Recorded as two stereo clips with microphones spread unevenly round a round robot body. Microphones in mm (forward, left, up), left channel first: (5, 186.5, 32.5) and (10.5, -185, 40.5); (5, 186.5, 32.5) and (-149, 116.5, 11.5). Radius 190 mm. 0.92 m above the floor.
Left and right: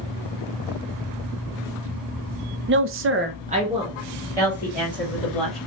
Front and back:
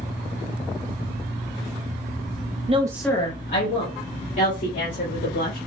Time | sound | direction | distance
2.7 | a woman speaking | 140° right | 0.6 m